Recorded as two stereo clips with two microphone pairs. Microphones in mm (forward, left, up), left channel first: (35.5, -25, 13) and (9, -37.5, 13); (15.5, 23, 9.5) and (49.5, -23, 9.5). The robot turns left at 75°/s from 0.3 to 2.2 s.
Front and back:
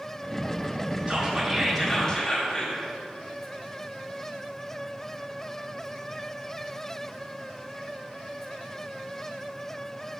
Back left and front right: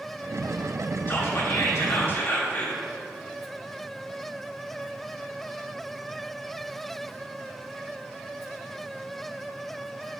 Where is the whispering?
165° left, 1.6 m; by 2.8 s 80° left, 1.6 m.